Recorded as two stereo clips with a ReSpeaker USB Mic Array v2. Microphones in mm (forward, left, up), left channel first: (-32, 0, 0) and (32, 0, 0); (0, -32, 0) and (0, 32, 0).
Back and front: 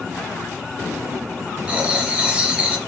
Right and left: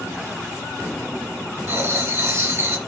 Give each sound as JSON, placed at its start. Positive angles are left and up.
{"t": 1.7, "sound": "writing", "azimuth_deg": 60, "distance_m": 1.5}